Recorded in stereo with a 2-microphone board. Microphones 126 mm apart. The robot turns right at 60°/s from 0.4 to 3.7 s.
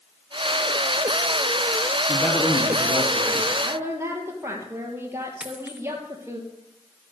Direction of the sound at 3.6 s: 15° right (ahead or behind).